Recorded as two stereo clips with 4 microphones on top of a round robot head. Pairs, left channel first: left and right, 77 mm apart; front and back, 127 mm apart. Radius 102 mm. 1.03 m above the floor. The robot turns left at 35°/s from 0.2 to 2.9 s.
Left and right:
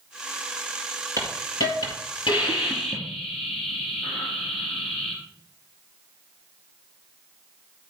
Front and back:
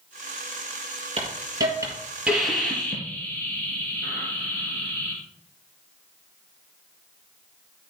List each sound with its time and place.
1.2 s a hiss: 135° left, 4 m; by 5.2 s 75° left, 4 m